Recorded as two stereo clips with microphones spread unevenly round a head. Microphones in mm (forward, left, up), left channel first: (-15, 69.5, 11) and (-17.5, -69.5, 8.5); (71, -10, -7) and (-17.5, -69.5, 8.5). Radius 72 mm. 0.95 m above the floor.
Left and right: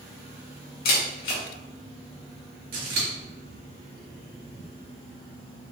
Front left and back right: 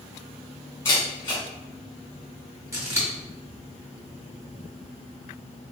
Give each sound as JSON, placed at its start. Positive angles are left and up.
{"t": 0.8, "sound": "a camera shutter", "azimuth_deg": 105, "distance_m": 1.4}
{"t": 2.7, "sound": "scissors", "azimuth_deg": -80, "distance_m": 1.8}